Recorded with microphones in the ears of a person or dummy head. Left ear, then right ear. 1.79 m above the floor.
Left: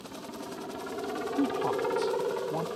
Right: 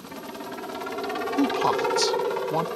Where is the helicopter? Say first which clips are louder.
Right 4 dB; 70° right (ahead or behind).